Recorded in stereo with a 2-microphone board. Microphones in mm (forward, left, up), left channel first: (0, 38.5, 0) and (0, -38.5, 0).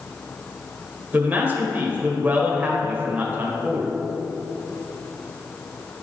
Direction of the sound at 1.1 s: 25° right (ahead or behind).